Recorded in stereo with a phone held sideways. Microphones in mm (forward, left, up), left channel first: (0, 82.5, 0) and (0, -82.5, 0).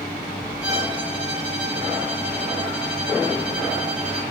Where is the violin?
10° right (ahead or behind), 4 m.